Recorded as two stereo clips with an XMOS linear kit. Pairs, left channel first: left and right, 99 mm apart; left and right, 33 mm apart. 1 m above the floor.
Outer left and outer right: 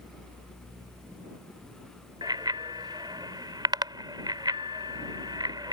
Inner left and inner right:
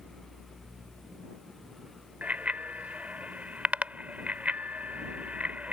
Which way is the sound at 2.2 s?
45° right (ahead or behind).